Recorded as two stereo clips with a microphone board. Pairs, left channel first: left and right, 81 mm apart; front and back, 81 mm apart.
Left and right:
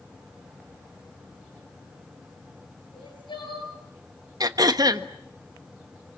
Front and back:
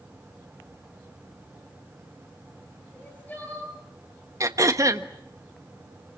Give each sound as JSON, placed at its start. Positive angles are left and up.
{"t": 2.9, "sound": "crying", "azimuth_deg": 70, "distance_m": 9.5}
{"t": 4.4, "sound": "throat clearing", "azimuth_deg": -130, "distance_m": 1.3}